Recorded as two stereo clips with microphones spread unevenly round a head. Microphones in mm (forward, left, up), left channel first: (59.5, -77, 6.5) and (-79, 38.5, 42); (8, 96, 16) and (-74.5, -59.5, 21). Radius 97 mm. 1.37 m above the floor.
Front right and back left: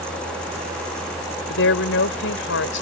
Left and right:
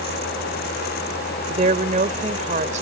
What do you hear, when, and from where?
1.5 s a woman speaking: 60° right